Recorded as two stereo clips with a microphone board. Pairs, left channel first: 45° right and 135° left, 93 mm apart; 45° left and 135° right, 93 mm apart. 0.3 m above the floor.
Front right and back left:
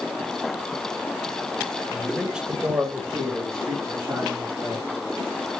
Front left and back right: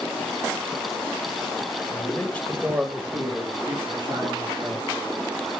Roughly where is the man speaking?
Ahead left.